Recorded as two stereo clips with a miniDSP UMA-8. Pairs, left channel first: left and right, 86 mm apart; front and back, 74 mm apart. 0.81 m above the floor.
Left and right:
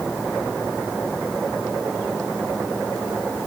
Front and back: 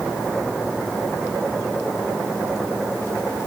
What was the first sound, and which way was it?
Only background noise.